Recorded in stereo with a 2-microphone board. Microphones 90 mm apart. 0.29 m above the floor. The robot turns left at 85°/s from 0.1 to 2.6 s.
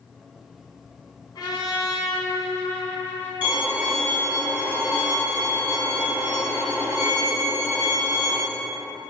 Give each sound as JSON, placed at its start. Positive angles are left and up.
{"t": 1.4, "sound": "a trumpet", "azimuth_deg": 130, "distance_m": 1.1}
{"t": 3.4, "sound": "a violin", "side_deg": -20, "distance_m": 1.9}